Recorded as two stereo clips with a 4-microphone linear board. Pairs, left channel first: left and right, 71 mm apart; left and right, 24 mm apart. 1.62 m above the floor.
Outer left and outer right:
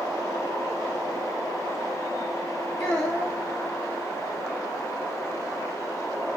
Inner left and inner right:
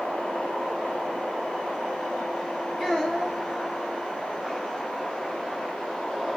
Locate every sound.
2.8 s a child speaking: 15° left (ahead or behind), 0.6 m